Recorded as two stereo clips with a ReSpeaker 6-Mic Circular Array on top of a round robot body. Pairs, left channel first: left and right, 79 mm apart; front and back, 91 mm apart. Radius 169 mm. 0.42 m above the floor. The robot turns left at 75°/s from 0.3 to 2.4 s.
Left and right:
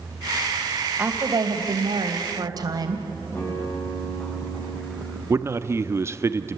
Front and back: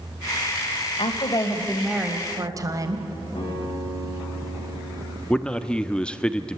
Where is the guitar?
25° left, 8.5 m.